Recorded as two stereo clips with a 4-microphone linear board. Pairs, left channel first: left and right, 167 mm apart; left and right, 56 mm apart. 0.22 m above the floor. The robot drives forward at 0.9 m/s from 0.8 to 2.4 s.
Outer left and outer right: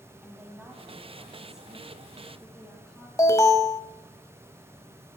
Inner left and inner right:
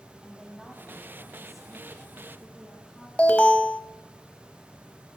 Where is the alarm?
20° left (ahead or behind), 0.6 m.